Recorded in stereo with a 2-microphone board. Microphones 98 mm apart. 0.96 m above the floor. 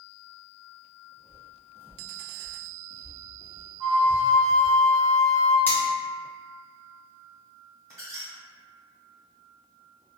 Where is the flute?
10° right (ahead or behind), 0.8 m.